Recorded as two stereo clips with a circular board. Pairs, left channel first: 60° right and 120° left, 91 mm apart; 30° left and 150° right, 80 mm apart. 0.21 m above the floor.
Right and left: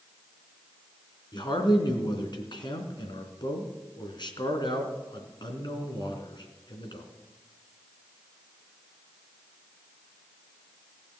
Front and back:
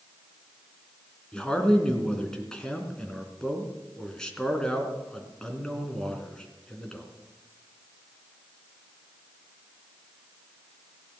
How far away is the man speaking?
About 3 m.